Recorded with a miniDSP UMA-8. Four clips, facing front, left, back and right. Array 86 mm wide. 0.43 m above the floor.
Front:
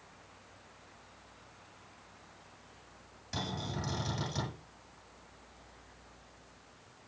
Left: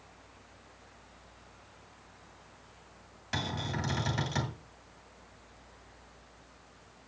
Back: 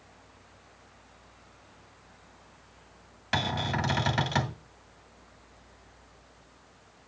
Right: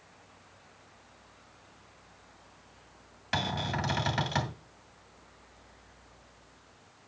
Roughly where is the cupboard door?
Behind right.